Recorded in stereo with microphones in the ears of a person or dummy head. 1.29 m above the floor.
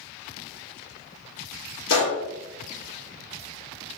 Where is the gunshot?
70° left (ahead or behind), 1.0 m.